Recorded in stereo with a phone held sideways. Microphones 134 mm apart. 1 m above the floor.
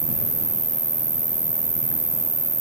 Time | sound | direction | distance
0.0 | an insect | 50° right (ahead or behind) | ?